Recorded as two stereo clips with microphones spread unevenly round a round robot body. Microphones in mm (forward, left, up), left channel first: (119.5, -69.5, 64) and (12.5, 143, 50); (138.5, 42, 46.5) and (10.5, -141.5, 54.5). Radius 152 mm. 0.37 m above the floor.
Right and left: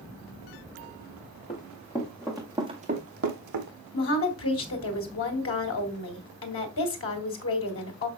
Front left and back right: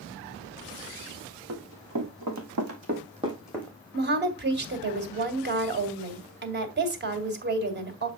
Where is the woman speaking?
90° right, 2.5 m.